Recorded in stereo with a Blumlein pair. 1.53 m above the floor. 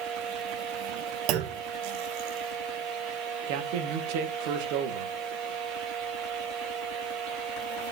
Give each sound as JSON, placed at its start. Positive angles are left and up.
{"t": 0.0, "sound": "a fan", "azimuth_deg": -40, "distance_m": 2.0}
{"t": 1.3, "sound": "a clunk", "azimuth_deg": -40, "distance_m": 1.2}
{"t": 3.5, "sound": "a man speaking", "azimuth_deg": -45, "distance_m": 1.9}